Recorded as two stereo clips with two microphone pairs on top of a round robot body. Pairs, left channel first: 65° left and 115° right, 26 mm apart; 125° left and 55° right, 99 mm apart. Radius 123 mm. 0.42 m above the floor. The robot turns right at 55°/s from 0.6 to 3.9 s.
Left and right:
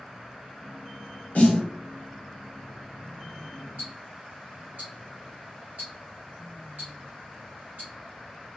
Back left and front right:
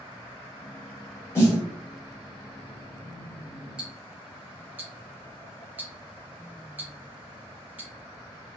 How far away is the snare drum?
About 1.0 m.